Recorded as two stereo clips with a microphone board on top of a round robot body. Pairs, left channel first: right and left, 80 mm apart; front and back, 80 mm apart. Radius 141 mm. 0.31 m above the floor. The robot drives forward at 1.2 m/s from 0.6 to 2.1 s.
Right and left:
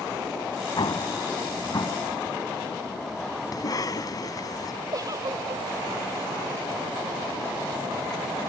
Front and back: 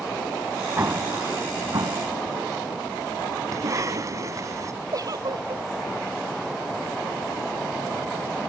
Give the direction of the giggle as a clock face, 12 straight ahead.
7 o'clock.